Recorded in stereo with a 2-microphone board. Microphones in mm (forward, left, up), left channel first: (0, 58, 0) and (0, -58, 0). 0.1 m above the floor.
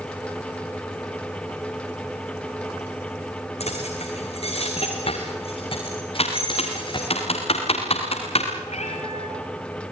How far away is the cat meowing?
About 6 m.